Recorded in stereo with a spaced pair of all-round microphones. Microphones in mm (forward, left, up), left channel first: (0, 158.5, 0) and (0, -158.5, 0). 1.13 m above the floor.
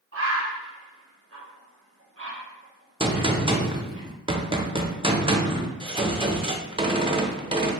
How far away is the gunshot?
About 0.6 m.